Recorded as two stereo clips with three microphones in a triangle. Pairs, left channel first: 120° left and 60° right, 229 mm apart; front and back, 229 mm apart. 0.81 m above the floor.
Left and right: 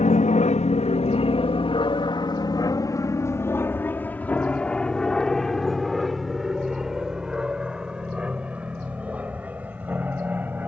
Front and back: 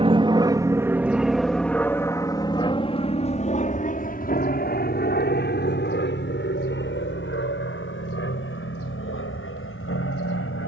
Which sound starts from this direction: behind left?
An aircraft, at 0.0 s.